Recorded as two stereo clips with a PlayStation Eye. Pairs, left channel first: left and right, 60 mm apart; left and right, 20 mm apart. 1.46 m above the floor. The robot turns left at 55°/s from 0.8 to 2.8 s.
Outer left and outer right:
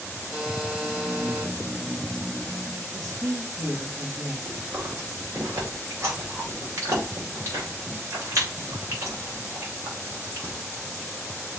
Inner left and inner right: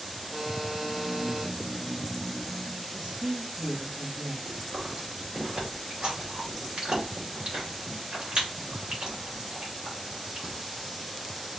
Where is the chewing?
60° right (ahead or behind), 5 m.